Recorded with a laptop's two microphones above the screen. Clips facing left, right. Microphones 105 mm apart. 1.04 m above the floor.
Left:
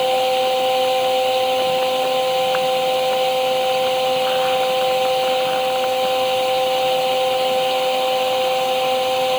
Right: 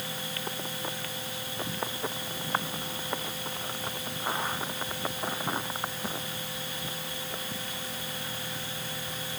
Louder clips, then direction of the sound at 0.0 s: Left 22 dB; 75° left (ahead or behind).